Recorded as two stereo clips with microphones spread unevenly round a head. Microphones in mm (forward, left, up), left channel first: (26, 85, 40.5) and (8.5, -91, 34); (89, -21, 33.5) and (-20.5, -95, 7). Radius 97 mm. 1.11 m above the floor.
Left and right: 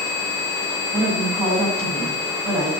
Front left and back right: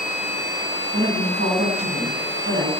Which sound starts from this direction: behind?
A woman speaking, at 0.9 s.